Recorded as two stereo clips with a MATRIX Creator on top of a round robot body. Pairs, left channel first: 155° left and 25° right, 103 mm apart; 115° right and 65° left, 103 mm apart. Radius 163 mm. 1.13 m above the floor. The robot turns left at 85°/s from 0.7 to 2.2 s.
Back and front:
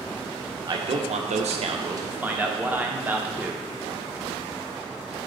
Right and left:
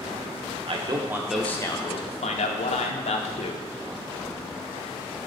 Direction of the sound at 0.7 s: 30° left.